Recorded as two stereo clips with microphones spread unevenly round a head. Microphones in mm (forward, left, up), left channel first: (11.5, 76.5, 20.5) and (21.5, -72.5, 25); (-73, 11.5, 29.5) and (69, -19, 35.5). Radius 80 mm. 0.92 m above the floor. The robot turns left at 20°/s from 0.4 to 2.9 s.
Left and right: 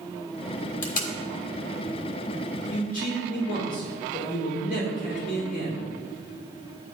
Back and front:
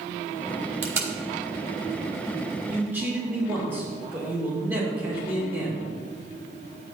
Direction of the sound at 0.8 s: 65° left.